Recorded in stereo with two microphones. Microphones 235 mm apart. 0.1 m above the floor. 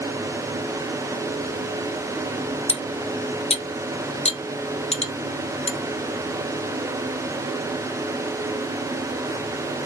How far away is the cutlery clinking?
About 0.8 m.